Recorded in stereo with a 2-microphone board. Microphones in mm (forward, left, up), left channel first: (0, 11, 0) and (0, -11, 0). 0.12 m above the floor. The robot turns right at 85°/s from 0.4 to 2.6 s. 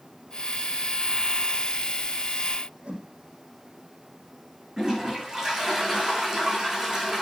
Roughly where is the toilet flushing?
Right.